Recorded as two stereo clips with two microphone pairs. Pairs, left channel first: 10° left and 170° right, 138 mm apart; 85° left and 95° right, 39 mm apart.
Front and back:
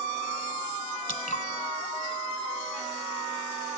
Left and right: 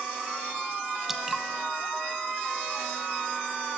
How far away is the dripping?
About 1.4 m.